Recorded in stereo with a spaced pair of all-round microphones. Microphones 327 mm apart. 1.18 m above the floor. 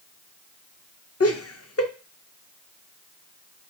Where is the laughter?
45° left (ahead or behind), 0.6 m.